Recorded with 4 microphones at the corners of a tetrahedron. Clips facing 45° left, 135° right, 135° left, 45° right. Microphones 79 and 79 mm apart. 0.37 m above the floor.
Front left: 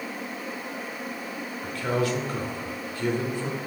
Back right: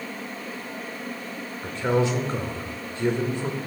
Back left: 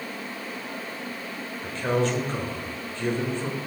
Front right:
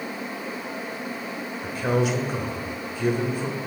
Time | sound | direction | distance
1.6 | a man speaking | 110° right | 1.2 m